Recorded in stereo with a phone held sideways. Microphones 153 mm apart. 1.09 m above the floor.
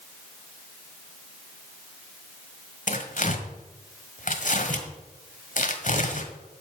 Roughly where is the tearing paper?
Left.